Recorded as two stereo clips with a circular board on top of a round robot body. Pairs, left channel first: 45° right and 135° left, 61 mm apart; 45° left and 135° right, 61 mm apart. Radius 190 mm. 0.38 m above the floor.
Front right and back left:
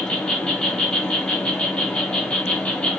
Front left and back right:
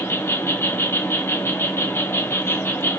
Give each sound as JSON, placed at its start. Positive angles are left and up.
{"t": 0.0, "sound": "an insect", "azimuth_deg": 20, "distance_m": 1.1}